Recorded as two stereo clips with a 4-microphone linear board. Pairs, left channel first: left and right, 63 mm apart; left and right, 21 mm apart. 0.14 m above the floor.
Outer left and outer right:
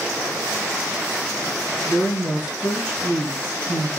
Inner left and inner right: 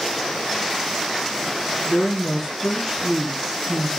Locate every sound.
1.9 s a woman speaking: 25° left (ahead or behind), 2.0 m